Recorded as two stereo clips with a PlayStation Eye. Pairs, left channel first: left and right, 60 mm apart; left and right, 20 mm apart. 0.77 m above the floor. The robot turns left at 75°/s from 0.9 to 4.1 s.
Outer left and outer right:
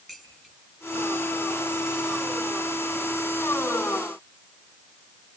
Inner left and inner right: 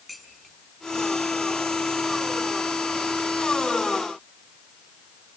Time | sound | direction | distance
0.1 | dishes clattering | 10° right (ahead or behind) | 7.5 m